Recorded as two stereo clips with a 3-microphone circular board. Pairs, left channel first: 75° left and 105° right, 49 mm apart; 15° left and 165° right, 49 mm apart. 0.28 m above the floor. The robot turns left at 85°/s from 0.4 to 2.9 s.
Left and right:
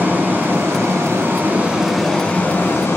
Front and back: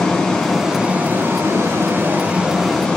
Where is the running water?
60° right, 2.5 m; by 3.0 s 85° left, 2.5 m.